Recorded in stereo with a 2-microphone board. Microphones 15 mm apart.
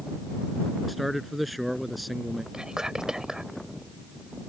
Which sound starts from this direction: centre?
A man speaking, at 0.9 s.